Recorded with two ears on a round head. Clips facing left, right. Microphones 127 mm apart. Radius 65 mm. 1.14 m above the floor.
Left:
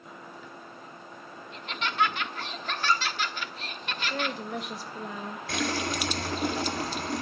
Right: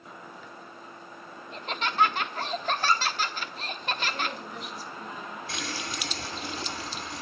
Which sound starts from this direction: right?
Laughter, at 1.5 s.